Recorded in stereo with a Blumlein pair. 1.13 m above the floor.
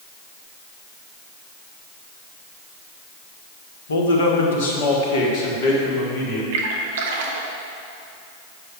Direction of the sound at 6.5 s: 55° right.